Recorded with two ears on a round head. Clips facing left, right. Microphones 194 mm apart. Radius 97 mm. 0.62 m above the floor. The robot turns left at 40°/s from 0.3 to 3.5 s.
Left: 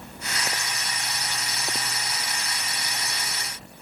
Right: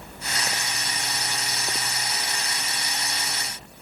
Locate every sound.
Only background noise.